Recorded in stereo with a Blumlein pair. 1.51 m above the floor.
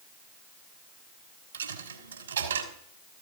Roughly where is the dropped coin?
Right.